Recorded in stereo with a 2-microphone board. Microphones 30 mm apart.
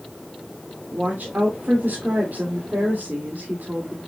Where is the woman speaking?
70° right (ahead or behind), 2.5 m.